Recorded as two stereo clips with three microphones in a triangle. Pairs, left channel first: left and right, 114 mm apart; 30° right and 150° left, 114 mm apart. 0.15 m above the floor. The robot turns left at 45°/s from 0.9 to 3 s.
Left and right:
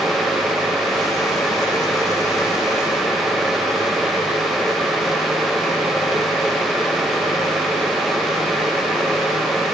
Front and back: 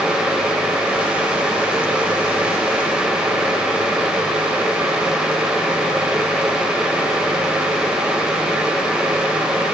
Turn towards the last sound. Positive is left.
No sound to turn to.